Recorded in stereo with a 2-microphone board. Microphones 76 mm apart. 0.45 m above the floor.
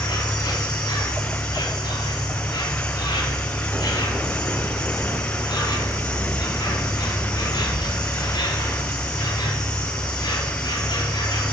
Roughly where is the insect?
Left.